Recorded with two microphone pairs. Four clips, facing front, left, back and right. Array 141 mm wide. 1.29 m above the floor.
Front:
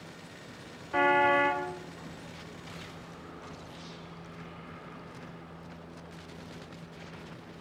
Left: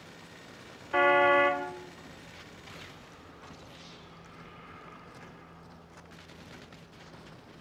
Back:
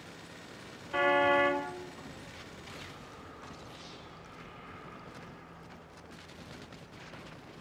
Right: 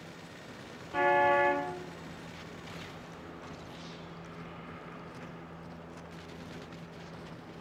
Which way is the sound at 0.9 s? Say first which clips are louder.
Left 3 dB, front 2 dB; 80° left.